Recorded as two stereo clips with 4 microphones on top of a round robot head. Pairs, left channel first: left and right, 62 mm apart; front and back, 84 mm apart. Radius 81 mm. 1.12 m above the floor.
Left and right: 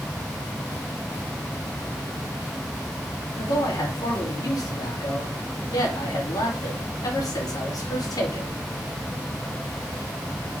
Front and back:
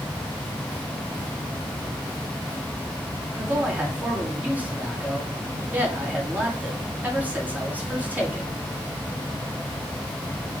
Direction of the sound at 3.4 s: 105° left.